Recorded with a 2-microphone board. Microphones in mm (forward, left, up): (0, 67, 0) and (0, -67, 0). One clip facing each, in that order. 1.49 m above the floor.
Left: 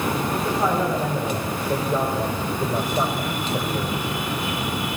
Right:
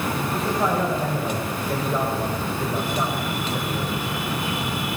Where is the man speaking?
5° left (ahead or behind), 7.5 m; by 4.0 s 20° left (ahead or behind), 5 m.